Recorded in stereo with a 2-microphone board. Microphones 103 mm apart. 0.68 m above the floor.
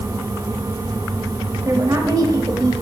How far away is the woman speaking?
About 1.2 m.